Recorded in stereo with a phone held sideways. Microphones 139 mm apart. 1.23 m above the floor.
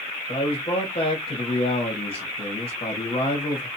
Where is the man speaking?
45° left (ahead or behind), 1.0 m.